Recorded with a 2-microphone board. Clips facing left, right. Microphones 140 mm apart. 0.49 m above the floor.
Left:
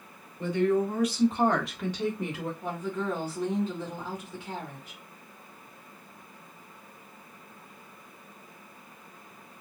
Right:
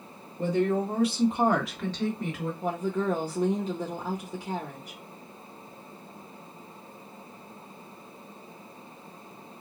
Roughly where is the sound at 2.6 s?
Right.